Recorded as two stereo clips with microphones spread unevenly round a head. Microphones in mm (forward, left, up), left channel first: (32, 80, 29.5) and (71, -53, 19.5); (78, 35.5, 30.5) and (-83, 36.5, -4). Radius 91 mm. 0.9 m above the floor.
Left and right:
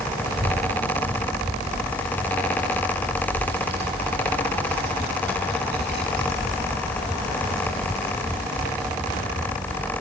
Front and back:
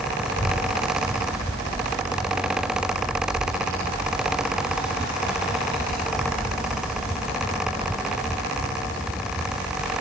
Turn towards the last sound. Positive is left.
turn(degrees=-70)